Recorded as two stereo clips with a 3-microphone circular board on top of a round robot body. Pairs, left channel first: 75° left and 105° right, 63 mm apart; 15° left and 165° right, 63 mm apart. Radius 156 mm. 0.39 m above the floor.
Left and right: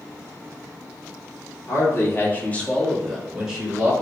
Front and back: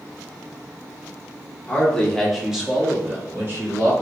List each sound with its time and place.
1.7 s a man speaking: 85° left, 1.4 m; by 3.9 s 170° right, 1.4 m